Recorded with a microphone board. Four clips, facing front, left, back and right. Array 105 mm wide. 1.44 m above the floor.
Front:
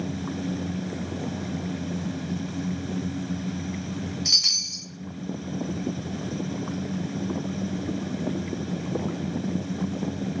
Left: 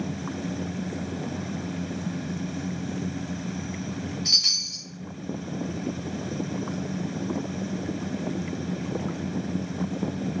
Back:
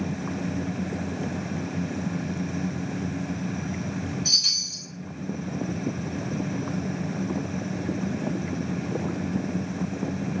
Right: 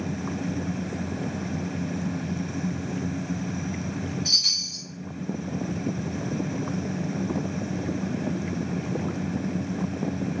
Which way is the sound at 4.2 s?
25° left.